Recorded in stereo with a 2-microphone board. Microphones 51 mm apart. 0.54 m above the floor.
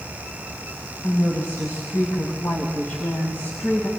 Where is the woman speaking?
70° left (ahead or behind), 4 m; by 3.9 s 50° left (ahead or behind), 3 m.